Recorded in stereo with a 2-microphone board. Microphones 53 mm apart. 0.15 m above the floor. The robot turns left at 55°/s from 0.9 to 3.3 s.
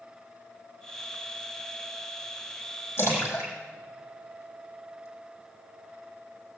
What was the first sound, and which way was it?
A splash, 50° left (ahead or behind).